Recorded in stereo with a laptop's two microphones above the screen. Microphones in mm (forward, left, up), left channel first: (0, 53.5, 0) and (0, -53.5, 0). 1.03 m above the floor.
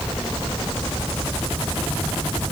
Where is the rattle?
I don't hear a rattle.